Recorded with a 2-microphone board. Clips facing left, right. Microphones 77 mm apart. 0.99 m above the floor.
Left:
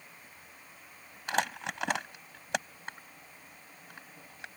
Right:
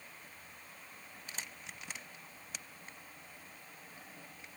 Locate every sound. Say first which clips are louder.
1.3 s crumpling: left 18 dB; 85° left